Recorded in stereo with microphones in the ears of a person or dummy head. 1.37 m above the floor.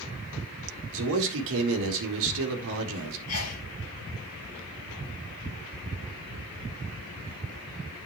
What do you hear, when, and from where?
0.9 s a man speaking: 70° right (ahead or behind), 1.7 m
3.3 s a sneeze: 80° left, 2 m